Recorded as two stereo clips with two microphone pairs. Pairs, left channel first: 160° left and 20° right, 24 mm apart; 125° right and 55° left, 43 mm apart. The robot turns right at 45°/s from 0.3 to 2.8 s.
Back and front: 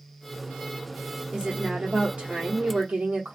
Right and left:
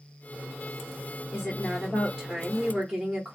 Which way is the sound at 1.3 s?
90° right.